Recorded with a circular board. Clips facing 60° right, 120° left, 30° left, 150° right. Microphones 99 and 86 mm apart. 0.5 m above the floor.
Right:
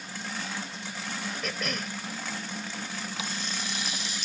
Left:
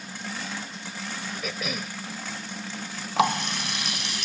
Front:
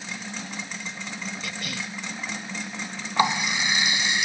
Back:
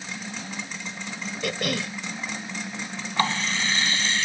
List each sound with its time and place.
1.4 s a cough: 155° right
3.2 s a running tap: 105° left